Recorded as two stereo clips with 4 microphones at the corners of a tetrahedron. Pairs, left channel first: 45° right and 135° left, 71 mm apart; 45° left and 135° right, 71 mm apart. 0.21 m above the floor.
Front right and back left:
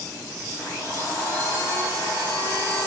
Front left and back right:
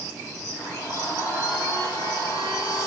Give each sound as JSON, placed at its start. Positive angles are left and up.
{"t": 0.6, "sound": "a blender", "azimuth_deg": 15, "distance_m": 6.0}